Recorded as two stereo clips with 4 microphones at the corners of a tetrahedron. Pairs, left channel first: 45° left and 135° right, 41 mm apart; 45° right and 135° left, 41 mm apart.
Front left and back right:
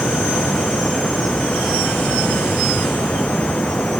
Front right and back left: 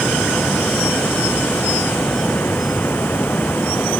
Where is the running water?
15° right.